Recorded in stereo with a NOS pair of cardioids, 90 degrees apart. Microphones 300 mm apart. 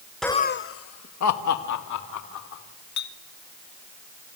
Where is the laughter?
Straight ahead, 0.6 m; by 2.6 s 75° left, 4 m.